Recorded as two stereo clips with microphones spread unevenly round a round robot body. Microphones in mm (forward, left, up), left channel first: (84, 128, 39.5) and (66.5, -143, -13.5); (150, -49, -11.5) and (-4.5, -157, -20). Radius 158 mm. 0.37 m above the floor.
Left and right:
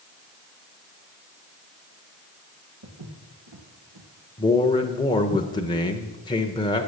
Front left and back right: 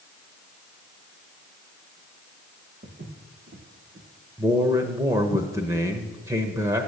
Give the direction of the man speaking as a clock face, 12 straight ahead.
6 o'clock.